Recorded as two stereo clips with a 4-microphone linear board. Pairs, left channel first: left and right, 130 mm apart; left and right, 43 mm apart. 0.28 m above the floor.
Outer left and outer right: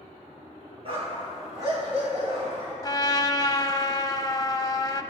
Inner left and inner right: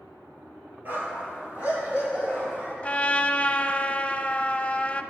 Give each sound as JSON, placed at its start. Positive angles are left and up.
{"t": 0.8, "sound": "a dog barking", "side_deg": -45, "distance_m": 3.0}
{"t": 2.8, "sound": "a trumpet", "side_deg": 30, "distance_m": 0.5}